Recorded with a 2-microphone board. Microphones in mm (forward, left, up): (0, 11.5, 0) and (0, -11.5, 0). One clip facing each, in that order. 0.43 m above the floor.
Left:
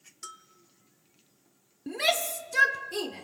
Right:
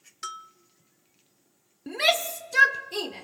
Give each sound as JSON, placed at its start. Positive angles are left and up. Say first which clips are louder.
{"t": 0.2, "sound": "a bell", "louder": "right 9 dB", "side_deg": -45, "distance_m": 0.5}
{"t": 1.9, "sound": "a shout", "louder": "right 3 dB", "side_deg": -20, "distance_m": 0.7}